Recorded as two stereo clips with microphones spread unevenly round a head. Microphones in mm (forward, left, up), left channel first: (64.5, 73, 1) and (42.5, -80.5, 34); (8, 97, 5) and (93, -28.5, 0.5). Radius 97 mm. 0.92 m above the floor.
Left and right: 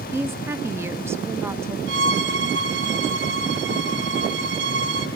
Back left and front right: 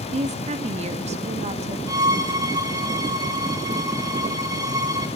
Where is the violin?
130° right, 1.6 m.